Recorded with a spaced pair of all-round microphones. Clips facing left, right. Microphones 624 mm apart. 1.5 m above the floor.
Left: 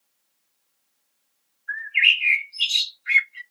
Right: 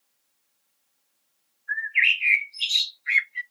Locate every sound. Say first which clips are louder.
1.7 s a bird: left 1 dB; 45° left (ahead or behind), 0.7 m